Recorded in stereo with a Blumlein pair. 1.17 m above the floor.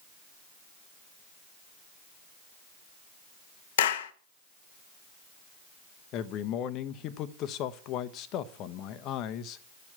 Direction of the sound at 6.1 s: 35° left.